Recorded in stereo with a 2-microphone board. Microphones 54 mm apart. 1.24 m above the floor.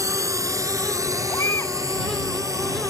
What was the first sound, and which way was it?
A drone, 75° right (ahead or behind).